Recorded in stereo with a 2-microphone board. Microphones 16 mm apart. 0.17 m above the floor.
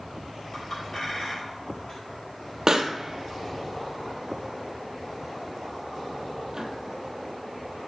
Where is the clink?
35° left (ahead or behind), 2 m.